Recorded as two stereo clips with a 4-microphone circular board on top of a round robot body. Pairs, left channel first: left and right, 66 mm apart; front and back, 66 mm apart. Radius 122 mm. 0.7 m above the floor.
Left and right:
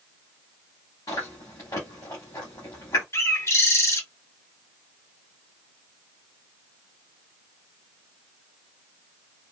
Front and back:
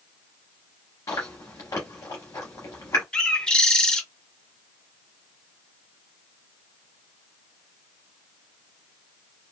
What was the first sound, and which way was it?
Chewing, 35° left.